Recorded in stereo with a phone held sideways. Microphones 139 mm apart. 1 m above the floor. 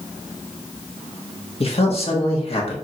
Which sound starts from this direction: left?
A man speaking, at 1.6 s.